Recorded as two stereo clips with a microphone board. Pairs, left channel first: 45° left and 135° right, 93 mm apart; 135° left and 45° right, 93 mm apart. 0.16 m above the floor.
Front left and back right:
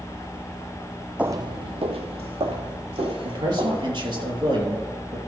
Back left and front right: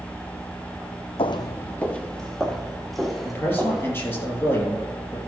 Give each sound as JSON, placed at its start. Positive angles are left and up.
{"t": 1.2, "sound": "footsteps", "azimuth_deg": 150, "distance_m": 0.5}
{"t": 3.2, "sound": "a man speaking", "azimuth_deg": -160, "distance_m": 4.0}